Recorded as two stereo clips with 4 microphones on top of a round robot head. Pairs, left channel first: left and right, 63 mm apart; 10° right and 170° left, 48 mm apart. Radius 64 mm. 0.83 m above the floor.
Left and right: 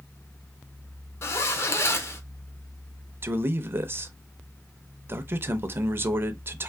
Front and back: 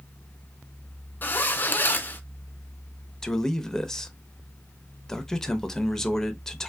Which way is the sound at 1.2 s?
45° left.